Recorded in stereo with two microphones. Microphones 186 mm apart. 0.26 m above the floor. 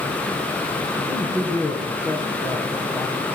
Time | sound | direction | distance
1.0 | a man speaking | 20° left (ahead or behind) | 3 m